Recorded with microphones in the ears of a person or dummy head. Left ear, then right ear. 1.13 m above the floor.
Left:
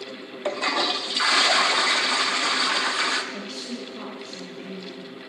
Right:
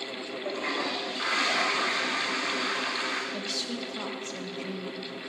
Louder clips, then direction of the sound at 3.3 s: Right 2 dB; 30° right (ahead or behind).